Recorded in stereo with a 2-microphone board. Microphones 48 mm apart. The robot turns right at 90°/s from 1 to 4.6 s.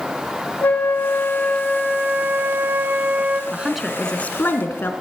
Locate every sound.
0.6 s a flute: 115° left, 0.9 m; by 3.4 s 25° right, 0.9 m
3.5 s a woman speaking: 25° right, 1.8 m; by 4.9 s 70° left, 1.8 m